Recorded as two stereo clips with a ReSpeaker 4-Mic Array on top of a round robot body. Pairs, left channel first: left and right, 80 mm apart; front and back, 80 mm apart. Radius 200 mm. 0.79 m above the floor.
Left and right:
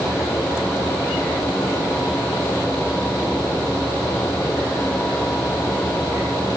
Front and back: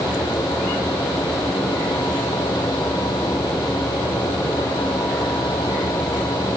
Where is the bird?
No bird in this recording.